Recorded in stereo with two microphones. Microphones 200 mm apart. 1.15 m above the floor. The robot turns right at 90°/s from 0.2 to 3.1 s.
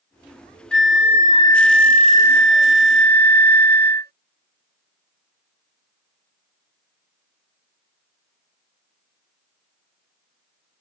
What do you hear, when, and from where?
0.7 s a flute: 90° left; by 4.1 s 55° right